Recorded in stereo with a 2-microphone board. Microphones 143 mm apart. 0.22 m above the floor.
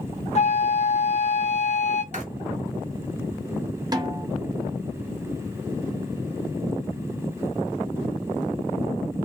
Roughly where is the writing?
Right.